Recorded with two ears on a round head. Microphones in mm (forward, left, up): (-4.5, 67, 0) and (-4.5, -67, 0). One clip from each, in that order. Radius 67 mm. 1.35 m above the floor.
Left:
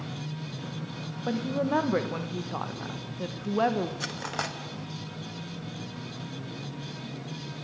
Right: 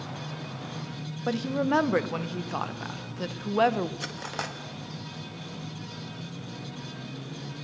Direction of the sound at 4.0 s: 5° left (ahead or behind).